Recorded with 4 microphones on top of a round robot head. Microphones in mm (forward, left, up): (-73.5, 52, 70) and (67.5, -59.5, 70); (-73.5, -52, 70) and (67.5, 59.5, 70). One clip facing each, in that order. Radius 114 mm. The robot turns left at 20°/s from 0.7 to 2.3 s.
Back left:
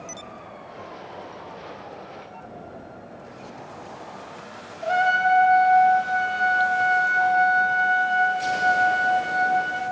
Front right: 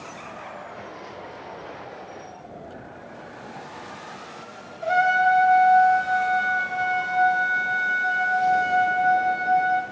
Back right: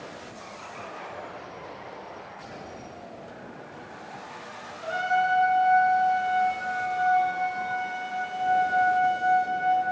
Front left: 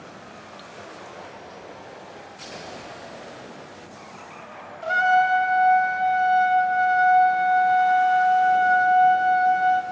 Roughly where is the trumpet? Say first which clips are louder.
Front right 1 dB, front left 5 dB; ahead left.